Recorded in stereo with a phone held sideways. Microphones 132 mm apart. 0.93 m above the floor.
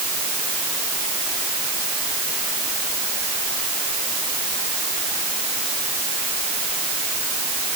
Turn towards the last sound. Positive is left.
No sound to turn to.